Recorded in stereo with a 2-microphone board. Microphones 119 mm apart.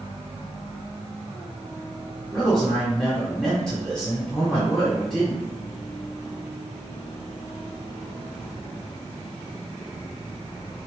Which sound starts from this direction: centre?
A man speaking, at 2.3 s.